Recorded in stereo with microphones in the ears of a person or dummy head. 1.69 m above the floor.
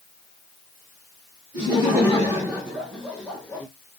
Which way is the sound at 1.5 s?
20° right (ahead or behind).